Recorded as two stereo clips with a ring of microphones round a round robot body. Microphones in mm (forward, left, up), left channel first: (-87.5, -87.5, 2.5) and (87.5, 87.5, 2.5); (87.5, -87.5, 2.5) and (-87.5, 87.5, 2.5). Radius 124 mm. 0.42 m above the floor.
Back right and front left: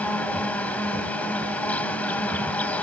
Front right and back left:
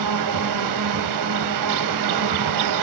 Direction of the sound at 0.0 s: 140° left.